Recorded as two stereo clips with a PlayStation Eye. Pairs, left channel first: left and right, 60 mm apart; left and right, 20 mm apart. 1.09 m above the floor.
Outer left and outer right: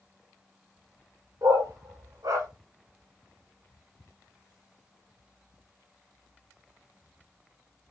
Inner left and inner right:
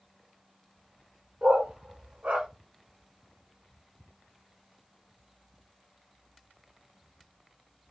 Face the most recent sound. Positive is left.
turn(degrees=-70)  # may be behind; listen again after turning